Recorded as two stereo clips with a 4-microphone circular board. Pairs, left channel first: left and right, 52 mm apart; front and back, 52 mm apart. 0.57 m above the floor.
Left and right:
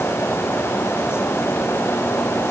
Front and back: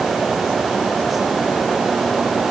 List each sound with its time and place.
Only background noise.